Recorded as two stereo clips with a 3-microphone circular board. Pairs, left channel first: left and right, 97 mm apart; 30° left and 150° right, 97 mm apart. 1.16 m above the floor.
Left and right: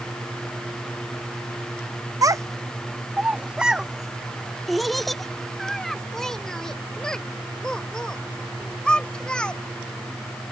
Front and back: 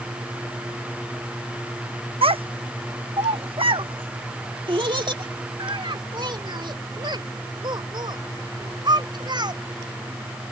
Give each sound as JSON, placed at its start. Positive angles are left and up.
{"t": 2.2, "sound": "a child speaking", "azimuth_deg": -140}